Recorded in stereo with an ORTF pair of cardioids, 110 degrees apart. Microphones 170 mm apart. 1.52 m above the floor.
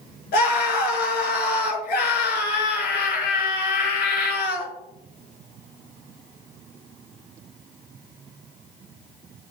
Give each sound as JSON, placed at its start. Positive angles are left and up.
{"t": 0.3, "sound": "a scream", "azimuth_deg": 65, "distance_m": 5.0}